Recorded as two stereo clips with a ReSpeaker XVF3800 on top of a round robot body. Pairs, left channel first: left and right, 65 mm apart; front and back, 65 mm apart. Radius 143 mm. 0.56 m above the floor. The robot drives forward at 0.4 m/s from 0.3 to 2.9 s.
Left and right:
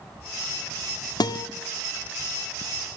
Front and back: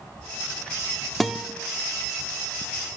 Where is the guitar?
90° left, 0.6 m; by 1.5 s 100° left, 0.6 m.